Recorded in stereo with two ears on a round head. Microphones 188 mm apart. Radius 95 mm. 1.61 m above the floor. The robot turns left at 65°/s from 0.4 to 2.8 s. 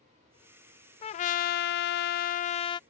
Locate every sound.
1.0 s a trumpet: 140° left; by 2.8 s 25° left